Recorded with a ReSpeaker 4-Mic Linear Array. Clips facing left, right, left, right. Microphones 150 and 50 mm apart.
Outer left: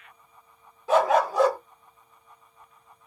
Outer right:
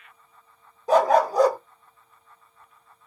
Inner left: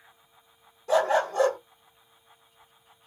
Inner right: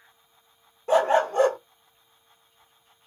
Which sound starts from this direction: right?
A dog barking, at 0.9 s.